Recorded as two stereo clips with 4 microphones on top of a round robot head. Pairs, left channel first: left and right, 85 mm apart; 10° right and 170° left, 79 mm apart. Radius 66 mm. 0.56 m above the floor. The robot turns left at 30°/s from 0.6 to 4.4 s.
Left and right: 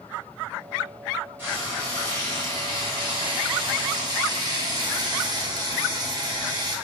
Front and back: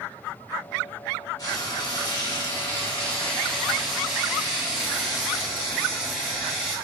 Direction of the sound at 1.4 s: 25° right.